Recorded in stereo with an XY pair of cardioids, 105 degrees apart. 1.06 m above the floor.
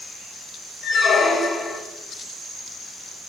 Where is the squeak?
45° left, 1.0 m.